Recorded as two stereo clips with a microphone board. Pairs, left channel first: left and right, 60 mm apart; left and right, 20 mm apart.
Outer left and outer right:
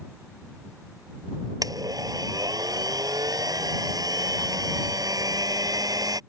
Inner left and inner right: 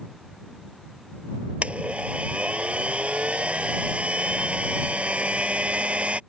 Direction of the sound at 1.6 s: 80° right.